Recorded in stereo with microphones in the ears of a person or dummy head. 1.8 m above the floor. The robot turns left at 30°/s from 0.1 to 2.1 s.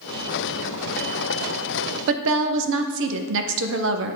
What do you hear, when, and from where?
2.1 s a woman speaking: 70° right (ahead or behind), 0.7 m